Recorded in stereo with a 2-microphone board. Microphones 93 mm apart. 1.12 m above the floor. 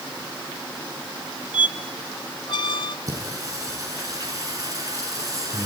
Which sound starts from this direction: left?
A squeak, at 1.5 s.